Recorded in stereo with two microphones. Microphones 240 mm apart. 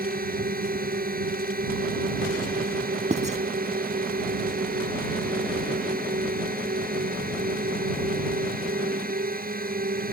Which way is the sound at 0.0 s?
35° right (ahead or behind).